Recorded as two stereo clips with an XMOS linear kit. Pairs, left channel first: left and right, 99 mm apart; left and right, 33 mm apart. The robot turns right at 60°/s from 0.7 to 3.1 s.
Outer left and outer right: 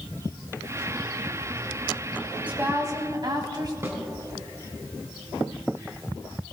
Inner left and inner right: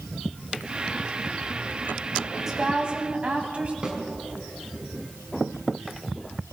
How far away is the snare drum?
About 2.5 m.